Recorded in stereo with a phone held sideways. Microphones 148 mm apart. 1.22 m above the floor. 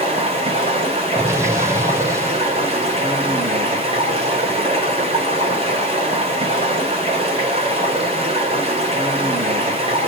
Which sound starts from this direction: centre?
An explosion, at 1.1 s.